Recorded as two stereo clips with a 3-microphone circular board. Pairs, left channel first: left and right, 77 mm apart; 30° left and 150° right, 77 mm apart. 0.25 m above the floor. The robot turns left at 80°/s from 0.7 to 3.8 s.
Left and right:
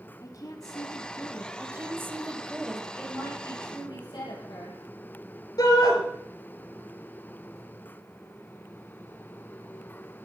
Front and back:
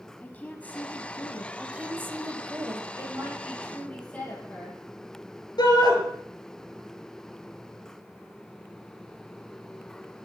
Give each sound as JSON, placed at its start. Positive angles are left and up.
{"t": 0.2, "sound": "a woman speaking", "azimuth_deg": 95, "distance_m": 1.3}
{"t": 1.6, "sound": "a woman speaking", "azimuth_deg": -80, "distance_m": 1.7}
{"t": 3.0, "sound": "a woman speaking", "azimuth_deg": 170, "distance_m": 7.5}
{"t": 5.6, "sound": "a shout", "azimuth_deg": 55, "distance_m": 4.0}